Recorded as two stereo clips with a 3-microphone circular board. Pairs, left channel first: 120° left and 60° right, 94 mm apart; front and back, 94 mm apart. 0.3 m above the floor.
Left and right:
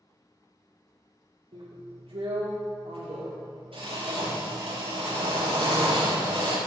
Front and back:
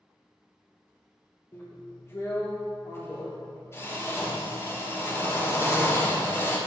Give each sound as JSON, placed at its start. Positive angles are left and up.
{"t": 1.5, "sound": "a drill", "azimuth_deg": -60, "distance_m": 5.0}